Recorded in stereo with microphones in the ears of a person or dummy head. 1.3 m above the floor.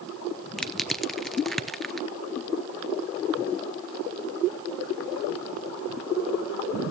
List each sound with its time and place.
0.6 s crushing: 5° left (ahead or behind), 0.5 m